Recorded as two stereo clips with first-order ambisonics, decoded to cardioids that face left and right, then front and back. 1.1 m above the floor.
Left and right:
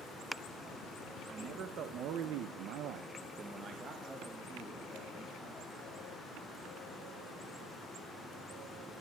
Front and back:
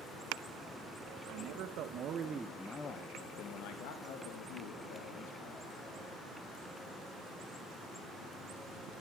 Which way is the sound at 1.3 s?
150° right.